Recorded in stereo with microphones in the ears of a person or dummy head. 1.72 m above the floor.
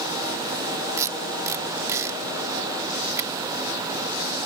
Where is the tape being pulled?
15° right (ahead or behind).